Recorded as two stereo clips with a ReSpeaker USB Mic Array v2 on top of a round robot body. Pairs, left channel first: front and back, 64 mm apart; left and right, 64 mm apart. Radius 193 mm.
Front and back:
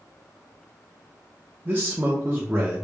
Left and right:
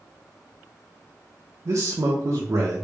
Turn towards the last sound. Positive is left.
turn(degrees=-120)